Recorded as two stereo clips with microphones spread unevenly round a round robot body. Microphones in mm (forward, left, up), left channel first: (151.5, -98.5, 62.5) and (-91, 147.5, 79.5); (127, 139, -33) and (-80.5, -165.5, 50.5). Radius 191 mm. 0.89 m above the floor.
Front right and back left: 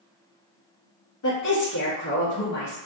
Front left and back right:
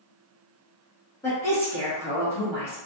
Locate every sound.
1.2 s a woman speaking: 20° right, 1.1 m